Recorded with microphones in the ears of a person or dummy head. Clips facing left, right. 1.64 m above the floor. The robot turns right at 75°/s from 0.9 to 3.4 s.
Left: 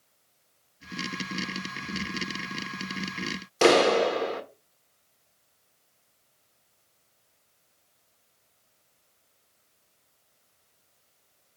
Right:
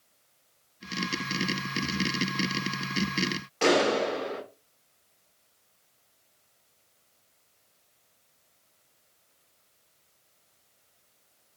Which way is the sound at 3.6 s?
60° left (ahead or behind).